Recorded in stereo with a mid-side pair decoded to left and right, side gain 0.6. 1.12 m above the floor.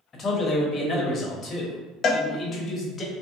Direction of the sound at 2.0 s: 50° left.